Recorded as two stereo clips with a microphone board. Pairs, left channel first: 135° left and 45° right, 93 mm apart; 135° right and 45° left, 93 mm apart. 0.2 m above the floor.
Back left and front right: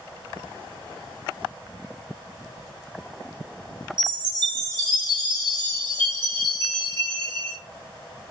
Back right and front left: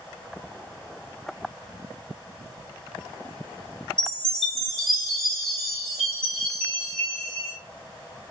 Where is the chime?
55° right, 1.4 m.